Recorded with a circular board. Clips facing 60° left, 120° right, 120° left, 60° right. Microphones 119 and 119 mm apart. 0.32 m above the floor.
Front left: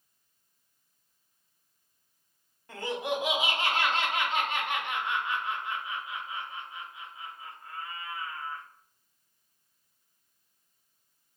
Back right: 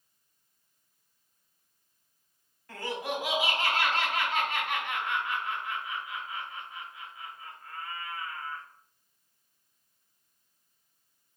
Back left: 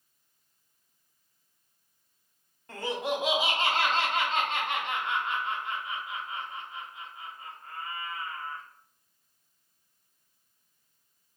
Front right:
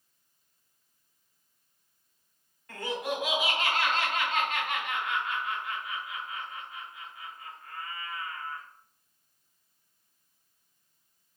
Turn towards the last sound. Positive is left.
turn(degrees=100)